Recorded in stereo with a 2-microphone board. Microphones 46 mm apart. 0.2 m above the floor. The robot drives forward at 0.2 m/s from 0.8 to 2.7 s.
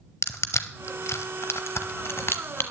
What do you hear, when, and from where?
0.2 s crushing: 75° left (ahead or behind), 0.9 m; by 2.6 s 55° left (ahead or behind), 1.0 m